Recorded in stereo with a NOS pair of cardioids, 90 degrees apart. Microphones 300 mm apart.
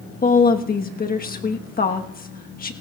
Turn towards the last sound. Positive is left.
turn(degrees=30)